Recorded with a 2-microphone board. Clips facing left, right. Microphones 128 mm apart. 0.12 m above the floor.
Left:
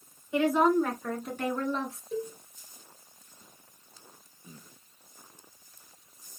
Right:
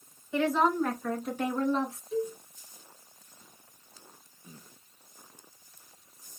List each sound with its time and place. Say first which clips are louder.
0.3 s a woman speaking: left 2 dB; 15° left (ahead or behind), 1.8 m; by 2.0 s 25° right (ahead or behind), 1.7 m
2.1 s a cowbell: right 3 dB; 35° left (ahead or behind), 1.9 m